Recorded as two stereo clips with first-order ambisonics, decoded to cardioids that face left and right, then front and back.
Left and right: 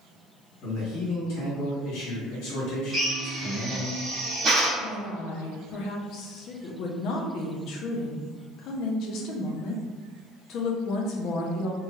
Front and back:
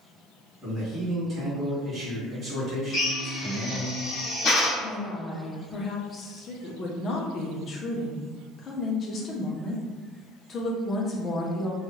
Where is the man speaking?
100° left, 1.6 m.